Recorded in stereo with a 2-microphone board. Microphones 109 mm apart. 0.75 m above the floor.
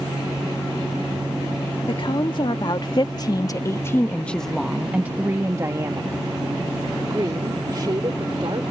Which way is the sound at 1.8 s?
50° left (ahead or behind).